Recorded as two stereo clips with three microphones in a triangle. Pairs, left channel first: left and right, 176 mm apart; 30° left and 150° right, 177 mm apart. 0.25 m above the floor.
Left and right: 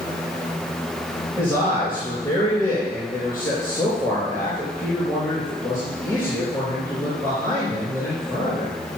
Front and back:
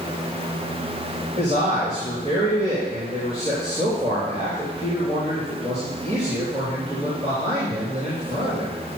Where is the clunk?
No clunk in this recording.